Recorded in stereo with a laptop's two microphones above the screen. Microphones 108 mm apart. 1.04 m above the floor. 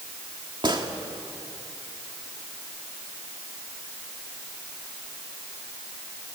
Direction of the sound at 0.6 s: 45° right (ahead or behind).